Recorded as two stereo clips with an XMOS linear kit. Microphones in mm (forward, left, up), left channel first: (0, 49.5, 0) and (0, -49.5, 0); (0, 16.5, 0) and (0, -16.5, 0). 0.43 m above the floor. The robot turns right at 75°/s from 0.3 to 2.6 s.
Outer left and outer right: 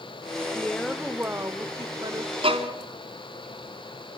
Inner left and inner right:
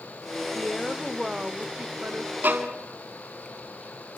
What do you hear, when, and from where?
0.5 s a woman speaking: 155° left, 1.4 m; by 2.3 s 70° right, 1.4 m
2.4 s a violin: 70° right (ahead or behind), 2.5 m; by 2.7 s 80° right, 2.5 m